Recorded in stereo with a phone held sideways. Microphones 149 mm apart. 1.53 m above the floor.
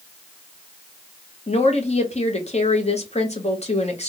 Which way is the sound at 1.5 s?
45° left (ahead or behind).